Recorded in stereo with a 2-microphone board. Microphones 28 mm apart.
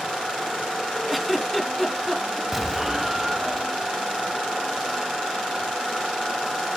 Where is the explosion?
10° right (ahead or behind), 0.8 m.